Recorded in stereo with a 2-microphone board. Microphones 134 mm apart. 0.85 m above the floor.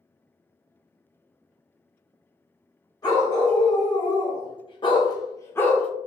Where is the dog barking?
30° left (ahead or behind), 1.3 m; by 5.9 s 10° left (ahead or behind), 0.6 m.